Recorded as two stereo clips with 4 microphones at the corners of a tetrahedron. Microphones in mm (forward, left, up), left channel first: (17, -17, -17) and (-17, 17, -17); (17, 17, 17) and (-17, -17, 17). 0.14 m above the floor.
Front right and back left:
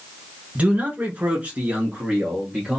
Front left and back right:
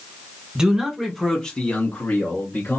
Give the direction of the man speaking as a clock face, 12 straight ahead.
7 o'clock.